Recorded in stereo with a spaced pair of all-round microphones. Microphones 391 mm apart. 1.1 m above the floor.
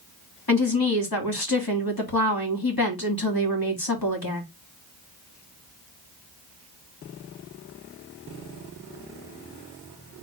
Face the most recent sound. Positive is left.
turn(degrees=55)  # may be behind; listen again after turning